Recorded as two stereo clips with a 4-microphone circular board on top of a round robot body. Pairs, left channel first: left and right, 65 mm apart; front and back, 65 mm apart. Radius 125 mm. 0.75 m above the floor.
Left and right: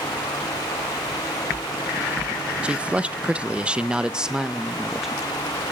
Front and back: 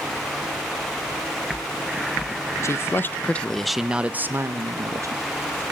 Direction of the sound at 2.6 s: 25° right.